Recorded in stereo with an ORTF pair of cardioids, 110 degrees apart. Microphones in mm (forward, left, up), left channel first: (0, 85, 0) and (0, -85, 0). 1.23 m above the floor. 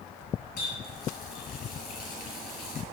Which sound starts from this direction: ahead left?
A running tap, at 0.6 s.